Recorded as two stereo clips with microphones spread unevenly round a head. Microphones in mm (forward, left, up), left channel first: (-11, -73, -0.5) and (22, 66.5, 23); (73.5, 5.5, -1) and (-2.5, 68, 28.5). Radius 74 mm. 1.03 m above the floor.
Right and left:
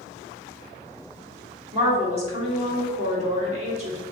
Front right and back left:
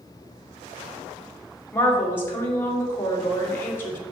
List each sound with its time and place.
1.7 s a woman speaking: 30° left, 2.5 m